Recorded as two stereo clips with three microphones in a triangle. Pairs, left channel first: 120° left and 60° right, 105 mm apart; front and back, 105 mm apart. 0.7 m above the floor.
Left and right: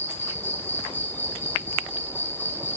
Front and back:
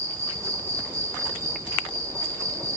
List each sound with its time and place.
0.0 s an insect: 165° left, 0.9 m